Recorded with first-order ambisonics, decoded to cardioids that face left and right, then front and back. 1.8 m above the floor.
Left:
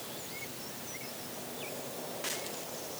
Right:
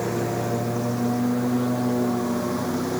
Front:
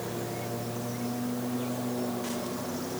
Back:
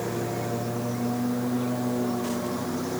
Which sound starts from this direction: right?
A lawn mower, at 0.0 s.